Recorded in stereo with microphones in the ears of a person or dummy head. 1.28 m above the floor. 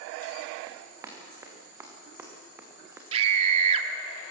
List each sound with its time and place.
0.7 s running footsteps: 10° right (ahead or behind), 6.5 m
3.1 s a scream: 35° right (ahead or behind), 2.5 m